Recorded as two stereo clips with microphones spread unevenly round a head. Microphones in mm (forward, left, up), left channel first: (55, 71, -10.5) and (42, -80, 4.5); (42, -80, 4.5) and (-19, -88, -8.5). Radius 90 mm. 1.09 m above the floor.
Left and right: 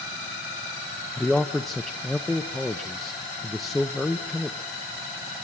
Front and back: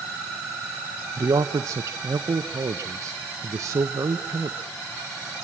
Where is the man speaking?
170° left, 0.8 m.